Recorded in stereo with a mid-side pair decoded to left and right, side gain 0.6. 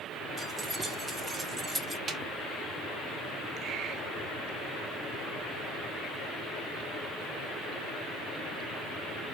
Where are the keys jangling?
20° right, 1.9 m.